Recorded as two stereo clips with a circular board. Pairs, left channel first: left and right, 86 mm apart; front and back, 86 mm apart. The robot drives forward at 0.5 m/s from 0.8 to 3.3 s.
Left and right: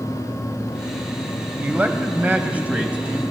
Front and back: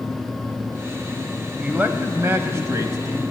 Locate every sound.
1.6 s a man speaking: 130° right, 1.3 m; by 3.2 s 160° right, 1.7 m